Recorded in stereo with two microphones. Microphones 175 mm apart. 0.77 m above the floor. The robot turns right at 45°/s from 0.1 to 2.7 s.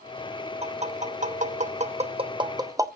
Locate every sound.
0.6 s tapping: 35° right (ahead or behind), 0.8 m; by 2.9 s 20° right (ahead or behind), 0.8 m